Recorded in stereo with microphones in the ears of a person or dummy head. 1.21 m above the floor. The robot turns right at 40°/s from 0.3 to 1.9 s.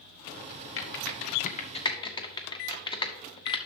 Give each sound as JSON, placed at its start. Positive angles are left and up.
{"t": 0.8, "sound": "typing on a keyboard", "side_deg": 70, "distance_m": 0.8}